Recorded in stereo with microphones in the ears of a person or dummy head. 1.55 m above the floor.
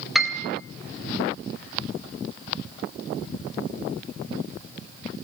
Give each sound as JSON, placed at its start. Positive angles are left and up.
{"t": 0.1, "sound": "a piano", "side_deg": -5, "distance_m": 2.5}